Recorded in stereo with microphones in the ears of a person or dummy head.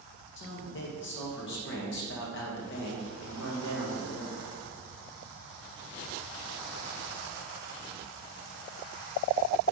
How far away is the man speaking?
About 1.6 m.